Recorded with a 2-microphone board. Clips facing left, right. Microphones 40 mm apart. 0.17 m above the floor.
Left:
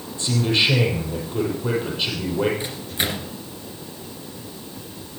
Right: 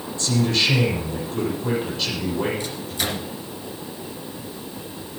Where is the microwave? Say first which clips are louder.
Left 1 dB; 25° left (ahead or behind), 2.0 m.